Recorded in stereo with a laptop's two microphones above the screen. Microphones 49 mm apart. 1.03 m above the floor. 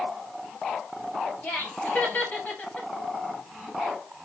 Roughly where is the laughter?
Left.